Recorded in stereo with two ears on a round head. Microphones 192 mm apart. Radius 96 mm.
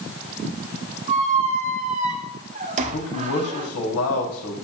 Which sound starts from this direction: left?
A man speaking, at 2.9 s.